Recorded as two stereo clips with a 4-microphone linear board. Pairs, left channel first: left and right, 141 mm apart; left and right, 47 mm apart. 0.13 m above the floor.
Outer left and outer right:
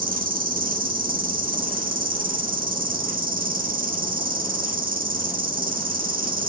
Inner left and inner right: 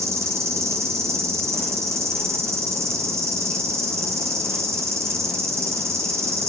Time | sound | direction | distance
0.0 | an insect | 90° right | 0.7 m